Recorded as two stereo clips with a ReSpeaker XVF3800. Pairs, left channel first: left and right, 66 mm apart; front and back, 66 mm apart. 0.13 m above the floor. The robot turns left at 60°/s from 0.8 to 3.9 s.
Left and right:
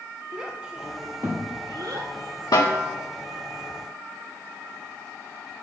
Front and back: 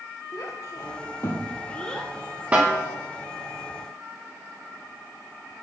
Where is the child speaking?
10° right, 2.5 m; by 2.1 s 90° right, 2.5 m.